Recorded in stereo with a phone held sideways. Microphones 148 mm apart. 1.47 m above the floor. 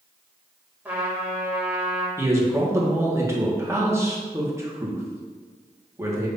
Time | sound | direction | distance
0.8 | a trumpet | 15° right (ahead or behind) | 2 m
2.2 | a man speaking | 20° right (ahead or behind) | 1.7 m